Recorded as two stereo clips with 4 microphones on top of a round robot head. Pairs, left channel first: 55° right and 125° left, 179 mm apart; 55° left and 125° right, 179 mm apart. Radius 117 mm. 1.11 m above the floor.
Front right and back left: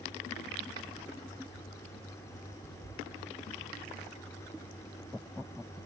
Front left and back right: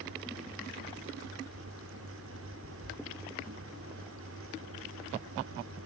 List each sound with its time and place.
Only background noise.